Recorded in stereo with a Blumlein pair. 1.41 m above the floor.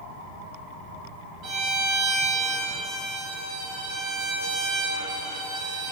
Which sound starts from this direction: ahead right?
A violin, at 1.4 s.